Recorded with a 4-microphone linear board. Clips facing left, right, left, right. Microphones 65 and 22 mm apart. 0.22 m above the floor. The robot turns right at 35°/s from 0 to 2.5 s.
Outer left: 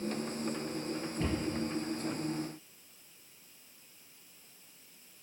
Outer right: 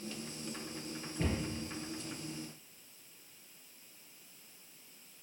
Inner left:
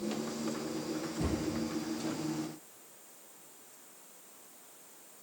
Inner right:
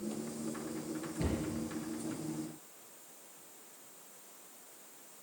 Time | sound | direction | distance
1.2 | a cupboard door | 20° right (ahead or behind) | 3 m